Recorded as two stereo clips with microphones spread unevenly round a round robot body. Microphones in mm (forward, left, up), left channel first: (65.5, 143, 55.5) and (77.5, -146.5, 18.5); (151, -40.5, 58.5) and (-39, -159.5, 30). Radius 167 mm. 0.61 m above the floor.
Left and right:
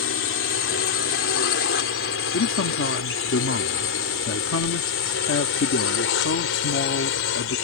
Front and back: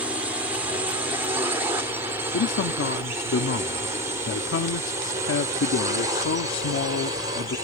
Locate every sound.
0.0 s a drone: 135° left; by 7.7 s 140° left
2.3 s a man speaking: 50° left